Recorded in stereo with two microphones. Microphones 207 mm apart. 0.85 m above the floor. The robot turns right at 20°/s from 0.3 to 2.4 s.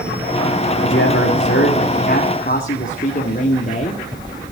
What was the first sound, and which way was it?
A man speaking, 100° left.